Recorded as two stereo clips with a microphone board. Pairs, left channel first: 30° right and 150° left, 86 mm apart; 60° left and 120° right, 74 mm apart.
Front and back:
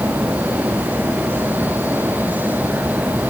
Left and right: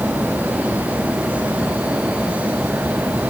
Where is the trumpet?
I don't hear a trumpet.